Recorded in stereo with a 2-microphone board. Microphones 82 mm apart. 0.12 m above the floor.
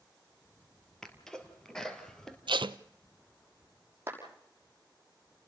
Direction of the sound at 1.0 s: 10° left (ahead or behind).